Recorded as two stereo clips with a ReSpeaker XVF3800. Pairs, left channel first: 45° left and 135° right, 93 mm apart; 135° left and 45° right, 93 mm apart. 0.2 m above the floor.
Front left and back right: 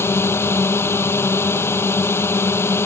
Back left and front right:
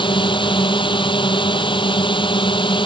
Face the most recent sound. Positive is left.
turn(degrees=110)